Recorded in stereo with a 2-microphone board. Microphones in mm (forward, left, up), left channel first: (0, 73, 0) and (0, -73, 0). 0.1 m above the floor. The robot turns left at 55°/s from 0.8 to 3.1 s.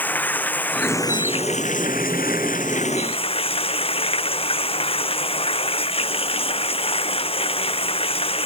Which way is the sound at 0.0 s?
170° left.